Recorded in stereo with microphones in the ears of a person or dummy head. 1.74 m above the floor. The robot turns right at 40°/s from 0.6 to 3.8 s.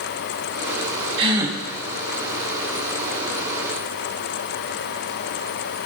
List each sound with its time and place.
1.2 s a gasp: 25° right (ahead or behind), 0.7 m; by 1.6 s 10° right (ahead or behind), 0.7 m